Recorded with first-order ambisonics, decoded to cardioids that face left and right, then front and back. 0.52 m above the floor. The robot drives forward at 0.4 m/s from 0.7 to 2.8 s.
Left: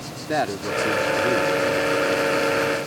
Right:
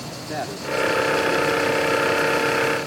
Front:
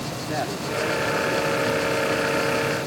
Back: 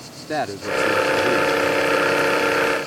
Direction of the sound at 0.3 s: 125° left.